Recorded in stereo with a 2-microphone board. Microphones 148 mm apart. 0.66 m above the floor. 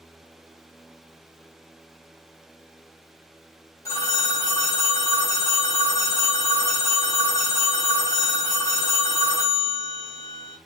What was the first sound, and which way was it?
A phone ringing, 20° left (ahead or behind).